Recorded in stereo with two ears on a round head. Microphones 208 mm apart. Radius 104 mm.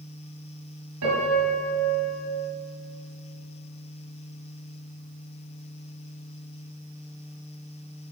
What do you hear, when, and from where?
1.0 s a piano: 70° right (ahead or behind), 6 m